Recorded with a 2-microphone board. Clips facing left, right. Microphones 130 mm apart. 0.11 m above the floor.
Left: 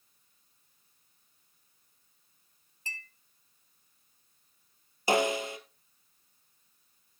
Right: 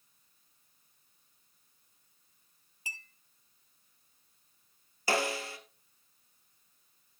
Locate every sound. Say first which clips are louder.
2.9 s a clink: left 2 dB; 10° right (ahead or behind), 1.7 m
5.1 s a snare drum: left 5 dB; 20° left (ahead or behind), 1.9 m